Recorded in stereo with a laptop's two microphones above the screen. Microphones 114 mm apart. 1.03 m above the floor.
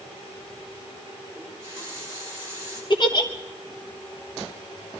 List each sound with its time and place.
1.4 s a running tap: 25° right (ahead or behind), 8.5 m
2.9 s a giggle: 40° left (ahead or behind), 1.1 m